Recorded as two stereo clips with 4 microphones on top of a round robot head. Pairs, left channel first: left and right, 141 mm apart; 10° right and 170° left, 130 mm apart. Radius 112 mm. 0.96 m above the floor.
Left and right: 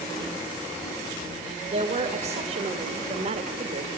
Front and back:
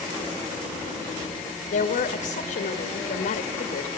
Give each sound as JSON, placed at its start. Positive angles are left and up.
{"t": 1.7, "sound": "a woman speaking", "azimuth_deg": -45, "distance_m": 1.6}